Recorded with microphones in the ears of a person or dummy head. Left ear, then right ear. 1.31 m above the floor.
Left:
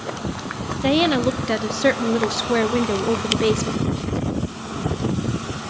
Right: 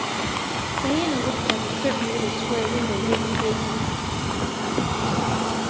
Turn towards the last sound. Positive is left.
turn(degrees=50)  # may be behind; listen again after turning